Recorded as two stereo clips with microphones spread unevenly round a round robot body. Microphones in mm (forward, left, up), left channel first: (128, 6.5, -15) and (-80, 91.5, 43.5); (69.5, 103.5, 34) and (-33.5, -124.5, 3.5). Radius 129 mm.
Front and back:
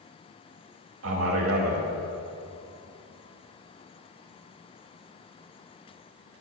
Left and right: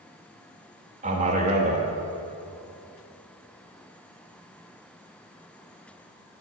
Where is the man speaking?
165° right, 0.9 m.